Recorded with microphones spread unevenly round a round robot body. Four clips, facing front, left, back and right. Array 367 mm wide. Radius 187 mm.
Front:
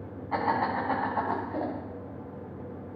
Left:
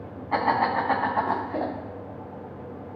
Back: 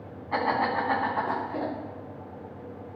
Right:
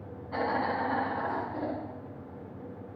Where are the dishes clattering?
I don't hear dishes clattering.